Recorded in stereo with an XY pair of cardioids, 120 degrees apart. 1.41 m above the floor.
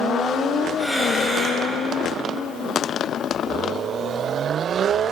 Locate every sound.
0.8 s breathing: 10° right, 10 m